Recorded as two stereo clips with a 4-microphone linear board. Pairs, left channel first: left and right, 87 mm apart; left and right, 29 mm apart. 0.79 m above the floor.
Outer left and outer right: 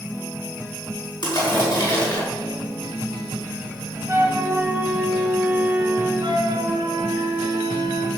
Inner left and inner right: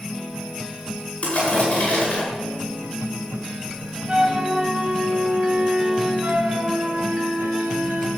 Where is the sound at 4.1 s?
20° right (ahead or behind), 3.5 m.